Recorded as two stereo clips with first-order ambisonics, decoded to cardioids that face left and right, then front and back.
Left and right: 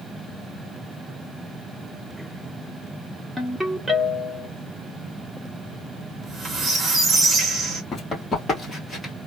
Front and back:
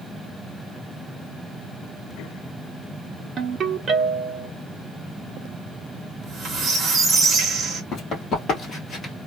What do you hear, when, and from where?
3.4 s a ringtone: 170° right, 0.9 m
6.1 s a squeak: 135° right, 0.9 m
7.9 s running footsteps: 35° left, 1.8 m; by 9.1 s 15° left, 1.5 m